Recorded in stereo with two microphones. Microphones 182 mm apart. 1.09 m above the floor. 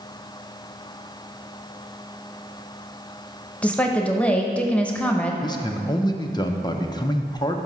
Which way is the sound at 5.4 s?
25° left (ahead or behind).